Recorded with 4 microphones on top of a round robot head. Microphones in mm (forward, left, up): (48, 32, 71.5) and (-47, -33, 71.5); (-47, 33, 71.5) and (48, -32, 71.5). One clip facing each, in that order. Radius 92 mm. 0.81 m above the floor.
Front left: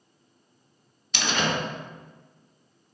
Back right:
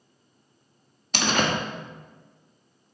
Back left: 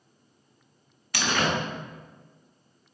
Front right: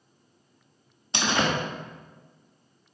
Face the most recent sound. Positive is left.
turn(degrees=-100)